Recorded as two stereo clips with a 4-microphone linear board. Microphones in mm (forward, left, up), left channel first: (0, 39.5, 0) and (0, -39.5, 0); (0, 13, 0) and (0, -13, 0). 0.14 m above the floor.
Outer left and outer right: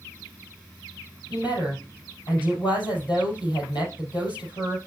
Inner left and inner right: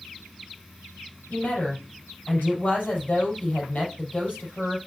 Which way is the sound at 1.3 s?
70° left (ahead or behind).